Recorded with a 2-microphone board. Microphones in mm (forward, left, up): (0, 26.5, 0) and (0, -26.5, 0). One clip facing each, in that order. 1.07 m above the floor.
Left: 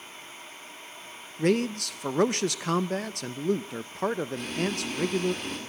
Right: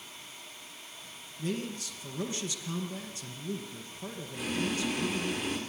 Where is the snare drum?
No snare drum in this recording.